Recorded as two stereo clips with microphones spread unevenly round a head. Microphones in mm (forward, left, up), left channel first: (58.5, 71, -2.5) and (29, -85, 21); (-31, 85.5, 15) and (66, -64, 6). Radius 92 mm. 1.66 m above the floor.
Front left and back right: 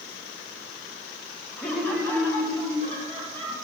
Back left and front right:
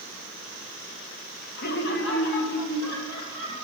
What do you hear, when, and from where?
1.6 s laughter: 165° left, 0.7 m